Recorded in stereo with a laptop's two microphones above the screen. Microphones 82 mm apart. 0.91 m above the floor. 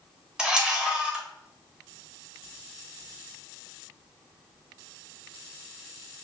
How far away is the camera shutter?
About 0.7 m.